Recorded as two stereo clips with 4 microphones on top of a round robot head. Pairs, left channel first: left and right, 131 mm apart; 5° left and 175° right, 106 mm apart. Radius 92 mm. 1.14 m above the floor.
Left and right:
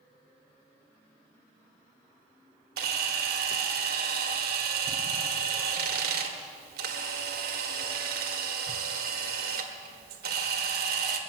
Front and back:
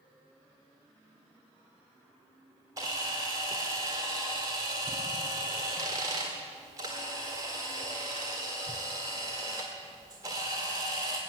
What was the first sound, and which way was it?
A camera shutter, 100° right.